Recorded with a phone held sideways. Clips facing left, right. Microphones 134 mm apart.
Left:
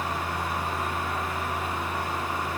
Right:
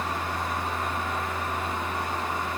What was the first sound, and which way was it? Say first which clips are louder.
A fan: even; 5° left (ahead or behind).